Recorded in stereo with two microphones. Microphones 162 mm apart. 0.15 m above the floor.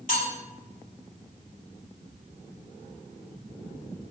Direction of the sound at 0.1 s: 55° left (ahead or behind).